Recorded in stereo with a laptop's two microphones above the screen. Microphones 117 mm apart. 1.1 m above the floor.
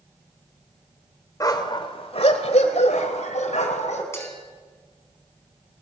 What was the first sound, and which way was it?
A dog barking, 30° left (ahead or behind).